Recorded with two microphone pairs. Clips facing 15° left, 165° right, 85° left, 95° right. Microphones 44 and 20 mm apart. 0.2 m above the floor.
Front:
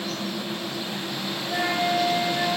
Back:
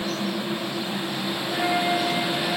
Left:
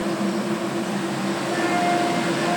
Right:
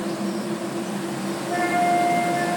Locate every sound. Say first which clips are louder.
1.5 s a flute: even, right 2 dB; 50° right, 10 m